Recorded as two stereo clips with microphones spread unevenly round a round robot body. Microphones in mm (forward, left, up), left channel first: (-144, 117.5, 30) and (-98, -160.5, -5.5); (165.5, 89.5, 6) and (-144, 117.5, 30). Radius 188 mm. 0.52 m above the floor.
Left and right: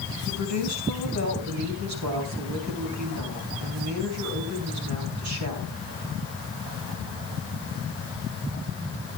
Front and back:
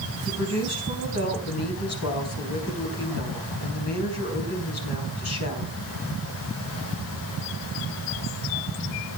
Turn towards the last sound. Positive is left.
turn(degrees=-50)